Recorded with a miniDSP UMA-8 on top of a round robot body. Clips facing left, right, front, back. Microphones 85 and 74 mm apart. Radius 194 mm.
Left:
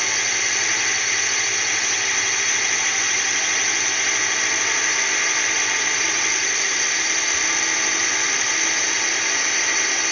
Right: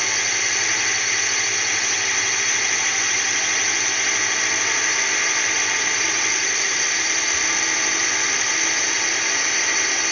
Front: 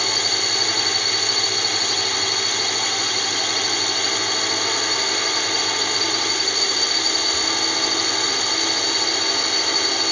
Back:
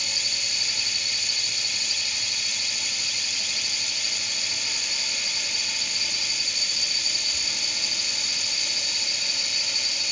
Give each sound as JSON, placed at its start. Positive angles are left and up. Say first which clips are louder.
{"t": 0.0, "sound": "a drone", "louder": "even, front 11 dB", "azimuth_deg": 0}